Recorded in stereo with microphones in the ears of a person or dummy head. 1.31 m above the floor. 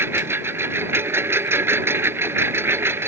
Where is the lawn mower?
15° right (ahead or behind).